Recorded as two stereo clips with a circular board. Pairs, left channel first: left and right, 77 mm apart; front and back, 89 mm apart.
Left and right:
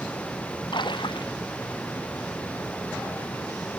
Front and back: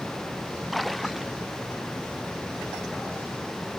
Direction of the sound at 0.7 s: 90° left.